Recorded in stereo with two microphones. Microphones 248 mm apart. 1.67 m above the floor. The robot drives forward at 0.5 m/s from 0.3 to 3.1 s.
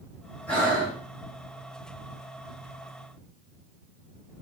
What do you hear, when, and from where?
0.5 s breathing: 5° left (ahead or behind), 4 m